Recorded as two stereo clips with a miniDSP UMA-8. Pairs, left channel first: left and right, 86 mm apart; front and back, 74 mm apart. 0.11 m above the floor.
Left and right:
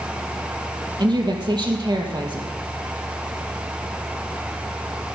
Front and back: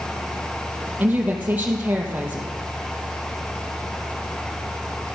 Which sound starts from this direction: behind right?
A woman speaking, at 1.0 s.